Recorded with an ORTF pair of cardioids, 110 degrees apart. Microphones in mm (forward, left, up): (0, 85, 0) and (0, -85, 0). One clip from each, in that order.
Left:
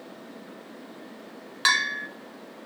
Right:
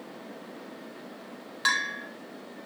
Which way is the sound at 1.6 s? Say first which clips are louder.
Left 4 dB; 30° left.